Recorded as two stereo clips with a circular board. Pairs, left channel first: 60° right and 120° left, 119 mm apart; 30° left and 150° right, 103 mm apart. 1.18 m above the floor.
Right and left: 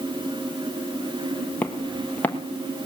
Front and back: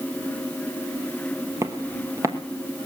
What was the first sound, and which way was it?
Footsteps, 125° right.